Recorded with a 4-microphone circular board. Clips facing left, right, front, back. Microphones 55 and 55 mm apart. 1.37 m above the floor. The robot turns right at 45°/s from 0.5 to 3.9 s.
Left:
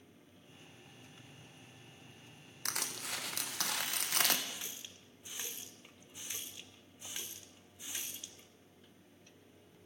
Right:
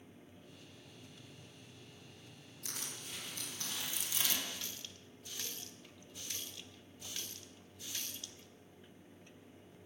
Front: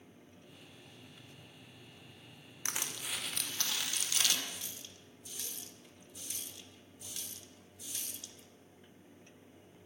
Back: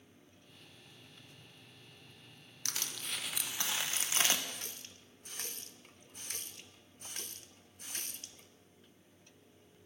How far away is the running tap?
About 0.9 m.